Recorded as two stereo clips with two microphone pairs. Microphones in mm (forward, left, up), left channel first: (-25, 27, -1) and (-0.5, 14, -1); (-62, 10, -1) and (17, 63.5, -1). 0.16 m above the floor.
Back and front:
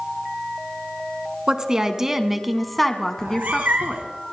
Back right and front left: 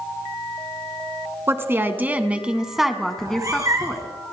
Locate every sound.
1.5 s a woman speaking: 5° left, 1.4 m; by 4.1 s 150° left, 1.5 m
3.2 s a cat meowing: 25° right, 1.5 m